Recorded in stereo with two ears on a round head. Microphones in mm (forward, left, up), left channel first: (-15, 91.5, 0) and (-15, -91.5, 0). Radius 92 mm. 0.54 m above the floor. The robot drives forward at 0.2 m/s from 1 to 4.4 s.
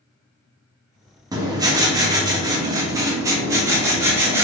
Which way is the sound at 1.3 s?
20° right (ahead or behind).